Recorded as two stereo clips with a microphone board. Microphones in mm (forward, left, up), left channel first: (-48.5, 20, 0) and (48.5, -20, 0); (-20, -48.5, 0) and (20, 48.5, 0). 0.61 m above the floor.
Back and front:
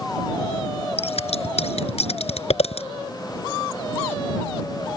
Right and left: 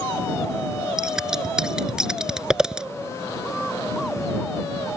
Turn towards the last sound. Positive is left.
turn(degrees=150)